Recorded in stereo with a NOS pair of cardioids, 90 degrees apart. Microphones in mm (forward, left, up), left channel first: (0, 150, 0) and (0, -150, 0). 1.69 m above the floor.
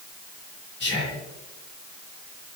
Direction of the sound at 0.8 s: 40° left.